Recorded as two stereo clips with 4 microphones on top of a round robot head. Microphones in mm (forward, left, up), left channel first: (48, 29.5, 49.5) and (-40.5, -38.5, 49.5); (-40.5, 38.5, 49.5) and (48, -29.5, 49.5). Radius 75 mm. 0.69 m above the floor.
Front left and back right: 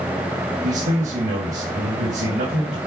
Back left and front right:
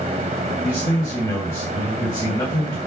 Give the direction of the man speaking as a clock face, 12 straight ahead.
5 o'clock.